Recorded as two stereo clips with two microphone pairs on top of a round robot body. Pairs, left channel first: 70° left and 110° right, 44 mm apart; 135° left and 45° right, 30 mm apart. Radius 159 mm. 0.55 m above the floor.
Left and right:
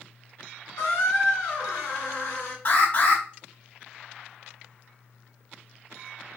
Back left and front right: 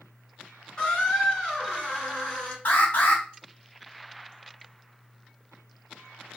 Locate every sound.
0.8 s a squeak: 75° left, 1.5 m
2.6 s an alarm: 120° left, 2.5 m